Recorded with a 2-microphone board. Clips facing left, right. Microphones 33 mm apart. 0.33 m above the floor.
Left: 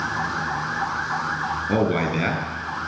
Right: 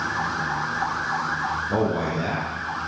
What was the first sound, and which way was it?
A man speaking, 80° left.